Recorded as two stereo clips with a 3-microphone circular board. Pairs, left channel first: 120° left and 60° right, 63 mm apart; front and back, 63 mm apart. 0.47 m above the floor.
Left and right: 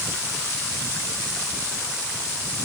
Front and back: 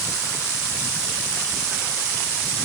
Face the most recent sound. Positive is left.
No sound to turn to.